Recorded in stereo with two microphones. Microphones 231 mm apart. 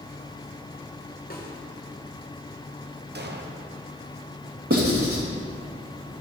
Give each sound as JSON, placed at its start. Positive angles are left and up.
{"t": 1.3, "sound": "a snare drum", "side_deg": 40, "distance_m": 1.5}
{"t": 3.1, "sound": "an explosion", "side_deg": -45, "distance_m": 0.8}
{"t": 4.7, "sound": "writing", "side_deg": -70, "distance_m": 3.0}